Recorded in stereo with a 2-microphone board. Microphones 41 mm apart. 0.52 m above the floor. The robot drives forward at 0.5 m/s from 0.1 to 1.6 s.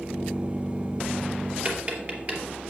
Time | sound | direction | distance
1.6 | tapping | 40° right (ahead or behind) | 3 m